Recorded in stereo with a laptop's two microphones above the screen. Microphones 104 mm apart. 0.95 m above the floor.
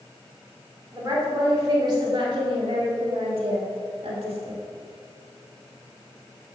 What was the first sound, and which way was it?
A woman speaking, 35° right (ahead or behind).